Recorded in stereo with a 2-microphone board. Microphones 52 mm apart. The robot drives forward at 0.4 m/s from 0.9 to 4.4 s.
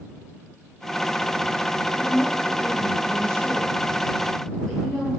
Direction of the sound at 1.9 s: 20° left (ahead or behind).